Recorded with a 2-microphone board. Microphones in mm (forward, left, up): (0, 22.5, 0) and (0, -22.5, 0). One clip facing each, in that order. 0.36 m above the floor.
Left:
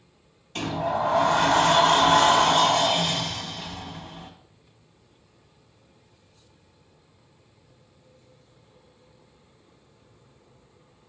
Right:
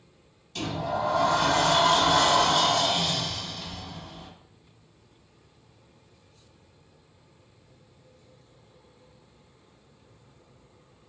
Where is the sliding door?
40° left (ahead or behind), 0.6 m.